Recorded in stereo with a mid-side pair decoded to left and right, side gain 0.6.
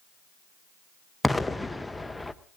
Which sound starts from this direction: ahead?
An explosion, at 1.2 s.